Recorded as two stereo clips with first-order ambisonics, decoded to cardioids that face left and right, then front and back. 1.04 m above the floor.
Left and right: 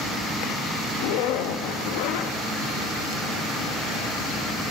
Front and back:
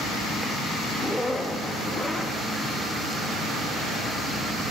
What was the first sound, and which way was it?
A zipper, 85° left.